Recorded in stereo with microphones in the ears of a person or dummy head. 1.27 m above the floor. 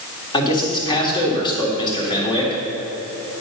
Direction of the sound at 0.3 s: 30° left (ahead or behind).